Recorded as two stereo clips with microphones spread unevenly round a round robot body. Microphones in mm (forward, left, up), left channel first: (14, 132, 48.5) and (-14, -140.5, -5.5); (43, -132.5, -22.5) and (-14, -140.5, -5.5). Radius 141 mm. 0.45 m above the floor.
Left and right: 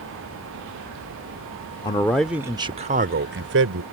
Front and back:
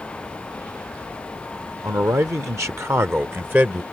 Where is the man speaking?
165° left; by 3.8 s 105° right.